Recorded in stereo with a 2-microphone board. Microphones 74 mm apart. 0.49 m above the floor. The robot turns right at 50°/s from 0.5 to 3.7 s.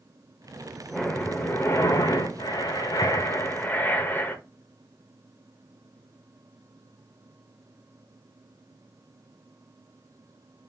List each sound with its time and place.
0.9 s breathing: 5° left, 1.0 m; by 4.4 s 145° left, 1.0 m